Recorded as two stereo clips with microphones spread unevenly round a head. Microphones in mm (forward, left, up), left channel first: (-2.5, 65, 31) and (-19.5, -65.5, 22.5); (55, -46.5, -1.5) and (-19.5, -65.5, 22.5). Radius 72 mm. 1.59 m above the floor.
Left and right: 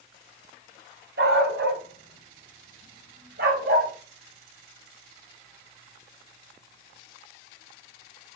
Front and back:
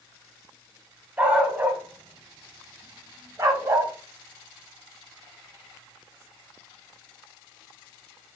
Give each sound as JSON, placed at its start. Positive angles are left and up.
{"t": 1.2, "sound": "a dog barking", "azimuth_deg": -100, "distance_m": 5.5}